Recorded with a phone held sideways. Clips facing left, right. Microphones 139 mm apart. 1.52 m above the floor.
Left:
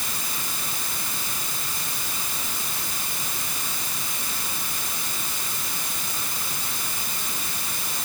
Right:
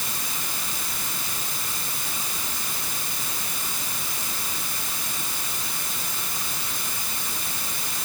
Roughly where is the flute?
I don't hear a flute.